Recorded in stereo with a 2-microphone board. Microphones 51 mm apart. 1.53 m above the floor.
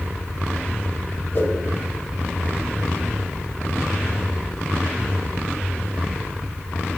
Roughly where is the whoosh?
Left.